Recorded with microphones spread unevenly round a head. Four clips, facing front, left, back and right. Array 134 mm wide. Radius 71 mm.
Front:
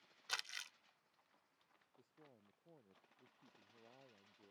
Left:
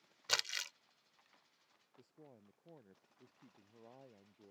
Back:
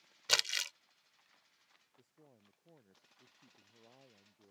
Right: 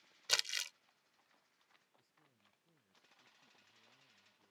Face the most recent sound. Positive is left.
turn(degrees=95)